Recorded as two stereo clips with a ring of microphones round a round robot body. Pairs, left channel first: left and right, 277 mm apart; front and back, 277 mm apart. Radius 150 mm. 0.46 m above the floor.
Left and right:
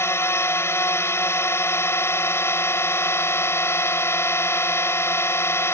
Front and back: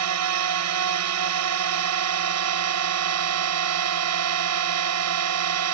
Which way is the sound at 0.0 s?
170° left.